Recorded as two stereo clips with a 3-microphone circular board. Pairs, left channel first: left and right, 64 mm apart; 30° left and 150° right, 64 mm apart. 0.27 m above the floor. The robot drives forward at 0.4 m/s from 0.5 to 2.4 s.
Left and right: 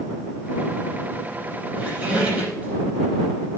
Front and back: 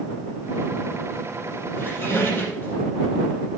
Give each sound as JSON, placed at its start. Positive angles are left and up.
{"t": 1.8, "sound": "a squeak", "azimuth_deg": -25, "distance_m": 5.5}